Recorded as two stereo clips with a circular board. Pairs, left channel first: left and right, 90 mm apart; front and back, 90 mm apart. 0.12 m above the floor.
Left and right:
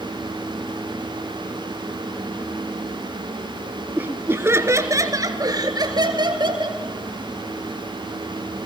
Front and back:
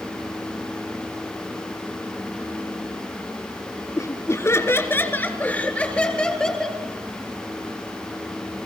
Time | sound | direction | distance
4.0 | laughter | 30° right | 2 m